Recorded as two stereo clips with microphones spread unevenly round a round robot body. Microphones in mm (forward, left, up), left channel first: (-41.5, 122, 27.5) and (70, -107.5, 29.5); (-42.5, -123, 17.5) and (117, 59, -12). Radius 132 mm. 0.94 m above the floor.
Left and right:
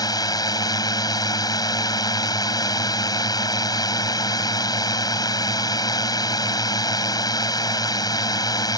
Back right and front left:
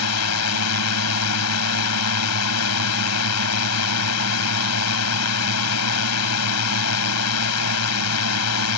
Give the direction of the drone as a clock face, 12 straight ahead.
6 o'clock.